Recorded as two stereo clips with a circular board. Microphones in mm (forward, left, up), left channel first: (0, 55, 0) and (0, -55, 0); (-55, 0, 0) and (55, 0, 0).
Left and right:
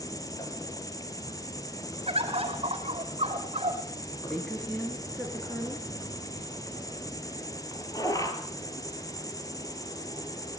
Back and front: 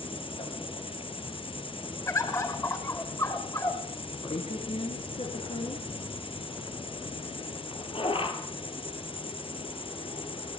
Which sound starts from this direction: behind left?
An insect, at 0.0 s.